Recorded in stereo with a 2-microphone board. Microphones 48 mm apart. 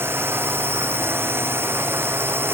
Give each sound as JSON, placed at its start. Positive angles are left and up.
{"t": 0.0, "sound": "a drone", "side_deg": -55}